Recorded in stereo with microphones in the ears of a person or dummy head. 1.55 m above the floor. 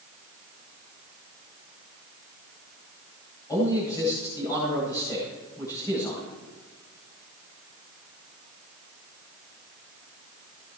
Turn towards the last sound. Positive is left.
turn(degrees=15)  # may be behind; listen again after turning